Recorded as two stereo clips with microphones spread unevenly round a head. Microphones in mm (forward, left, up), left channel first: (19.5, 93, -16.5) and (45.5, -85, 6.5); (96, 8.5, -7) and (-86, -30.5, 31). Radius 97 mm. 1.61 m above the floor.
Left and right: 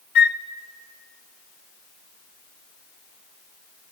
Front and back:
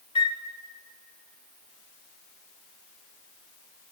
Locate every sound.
0.1 s a flute: 75° left, 0.5 m